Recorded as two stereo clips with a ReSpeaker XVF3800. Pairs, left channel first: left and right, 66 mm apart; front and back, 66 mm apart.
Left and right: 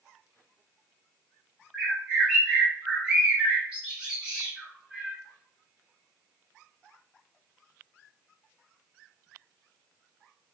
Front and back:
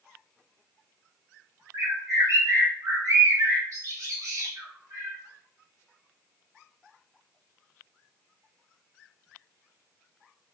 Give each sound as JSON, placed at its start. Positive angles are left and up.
{"t": 1.7, "sound": "a bird", "azimuth_deg": -160, "distance_m": 1.5}